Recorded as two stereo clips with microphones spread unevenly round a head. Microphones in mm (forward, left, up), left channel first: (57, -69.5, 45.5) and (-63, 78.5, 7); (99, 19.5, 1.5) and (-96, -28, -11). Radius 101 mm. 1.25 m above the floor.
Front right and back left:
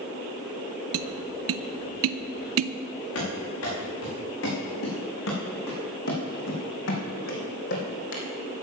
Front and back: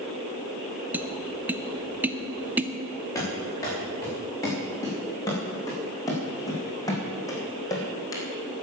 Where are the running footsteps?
60° right, 5.5 m; by 8.2 s 55° right, 2.5 m.